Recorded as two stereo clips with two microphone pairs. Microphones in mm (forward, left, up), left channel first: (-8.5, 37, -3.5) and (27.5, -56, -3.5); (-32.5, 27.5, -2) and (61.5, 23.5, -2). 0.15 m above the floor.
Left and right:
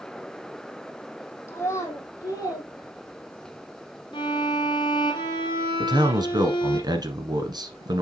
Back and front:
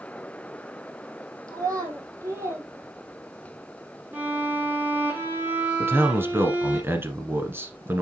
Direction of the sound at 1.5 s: 50° left.